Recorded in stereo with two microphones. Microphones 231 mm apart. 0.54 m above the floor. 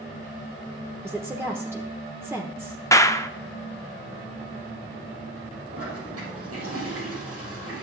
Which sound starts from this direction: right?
A toilet flushing, at 5.7 s.